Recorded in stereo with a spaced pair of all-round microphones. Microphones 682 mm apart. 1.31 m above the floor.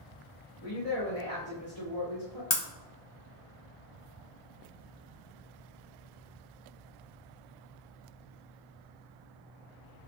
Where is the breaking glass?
45° left (ahead or behind), 1.3 m.